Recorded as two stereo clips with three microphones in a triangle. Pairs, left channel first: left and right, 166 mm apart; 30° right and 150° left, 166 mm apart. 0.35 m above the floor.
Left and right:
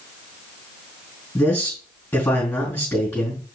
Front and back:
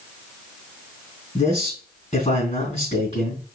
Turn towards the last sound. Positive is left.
turn(degrees=10)